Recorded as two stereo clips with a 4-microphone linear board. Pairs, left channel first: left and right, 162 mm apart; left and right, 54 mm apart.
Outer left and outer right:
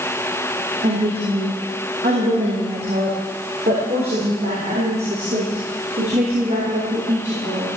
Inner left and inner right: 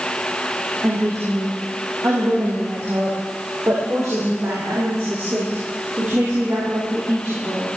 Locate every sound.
0.8 s a woman speaking: 70° right (ahead or behind), 6 m; by 7.7 s 60° right (ahead or behind), 9.5 m